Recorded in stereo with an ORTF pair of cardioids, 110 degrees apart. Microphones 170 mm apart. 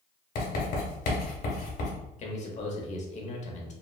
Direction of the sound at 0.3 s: 60° left.